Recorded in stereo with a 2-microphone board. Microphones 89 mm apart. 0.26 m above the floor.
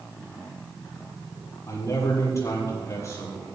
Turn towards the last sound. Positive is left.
turn(degrees=35)  # may be behind; listen again after turning